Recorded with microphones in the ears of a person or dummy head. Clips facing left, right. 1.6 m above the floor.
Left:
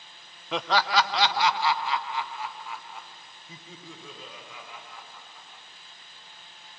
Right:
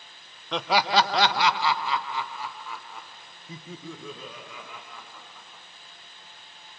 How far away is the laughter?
About 0.6 m.